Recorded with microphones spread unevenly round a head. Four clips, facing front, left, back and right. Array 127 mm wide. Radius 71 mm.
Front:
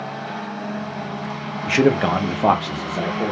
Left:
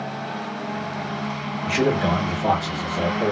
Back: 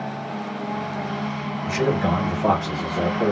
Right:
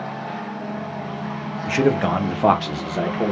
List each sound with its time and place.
1.7 s a man speaking: 10° left, 0.7 m; by 3.3 s 85° right, 0.9 m